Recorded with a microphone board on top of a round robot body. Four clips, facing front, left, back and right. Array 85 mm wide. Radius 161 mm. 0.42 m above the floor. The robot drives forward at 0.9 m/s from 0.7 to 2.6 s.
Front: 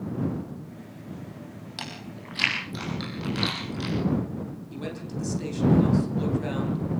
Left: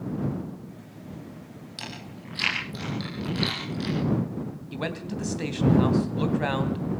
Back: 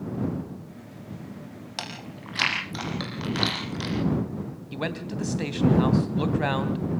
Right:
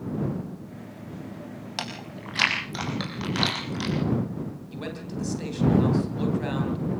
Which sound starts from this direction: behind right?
Chewing, at 1.8 s.